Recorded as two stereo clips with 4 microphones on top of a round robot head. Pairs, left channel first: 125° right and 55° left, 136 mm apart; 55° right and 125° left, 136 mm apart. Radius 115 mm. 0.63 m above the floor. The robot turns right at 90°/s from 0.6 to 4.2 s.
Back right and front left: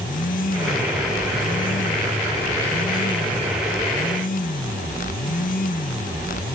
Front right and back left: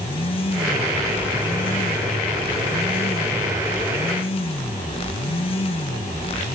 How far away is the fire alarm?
I don't hear a fire alarm.